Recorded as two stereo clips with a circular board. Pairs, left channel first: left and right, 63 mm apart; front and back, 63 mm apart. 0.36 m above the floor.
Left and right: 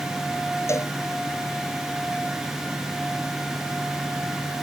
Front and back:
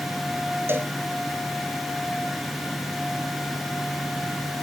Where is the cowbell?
130° left.